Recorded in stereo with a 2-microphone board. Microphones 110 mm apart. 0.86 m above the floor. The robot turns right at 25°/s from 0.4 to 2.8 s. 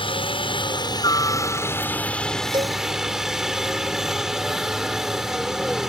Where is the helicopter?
125° left; by 5.9 s 175° right.